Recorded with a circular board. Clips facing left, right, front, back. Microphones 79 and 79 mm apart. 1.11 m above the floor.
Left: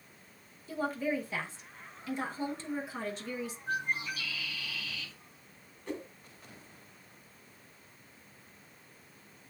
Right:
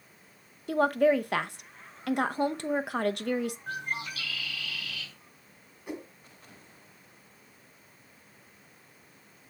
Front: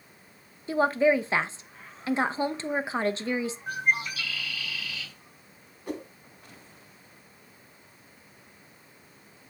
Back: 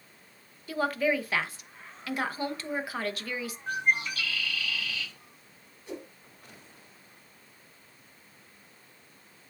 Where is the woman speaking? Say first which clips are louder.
Right 10 dB, front 5 dB; 65° right, 0.7 m.